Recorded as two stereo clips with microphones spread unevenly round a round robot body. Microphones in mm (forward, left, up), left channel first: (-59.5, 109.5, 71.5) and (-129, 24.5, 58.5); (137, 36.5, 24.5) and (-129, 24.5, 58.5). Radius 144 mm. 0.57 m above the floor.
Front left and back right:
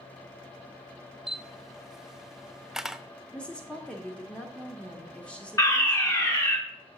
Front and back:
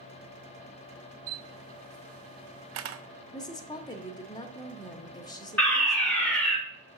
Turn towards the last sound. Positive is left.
turn(degrees=55)